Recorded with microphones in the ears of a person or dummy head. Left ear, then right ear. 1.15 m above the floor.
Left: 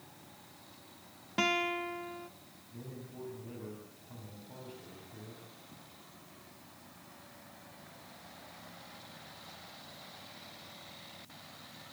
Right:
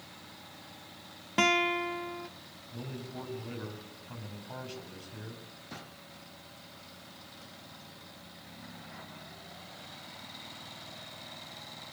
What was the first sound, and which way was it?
A guitar, 10° right (ahead or behind).